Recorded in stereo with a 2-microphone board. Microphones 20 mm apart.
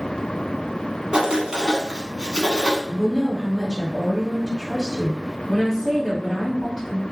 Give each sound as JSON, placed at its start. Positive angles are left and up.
{"t": 1.1, "sound": "writing", "side_deg": -45, "distance_m": 0.7}
{"t": 2.9, "sound": "a woman speaking", "side_deg": 10, "distance_m": 1.6}